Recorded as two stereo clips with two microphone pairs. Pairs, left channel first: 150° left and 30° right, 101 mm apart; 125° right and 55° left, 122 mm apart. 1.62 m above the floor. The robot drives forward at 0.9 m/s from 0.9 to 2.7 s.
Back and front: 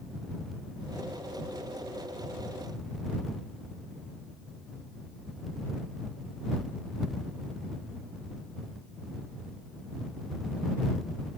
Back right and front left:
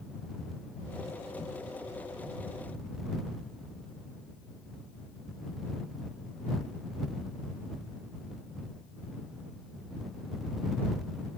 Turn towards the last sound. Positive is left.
No sound to turn to.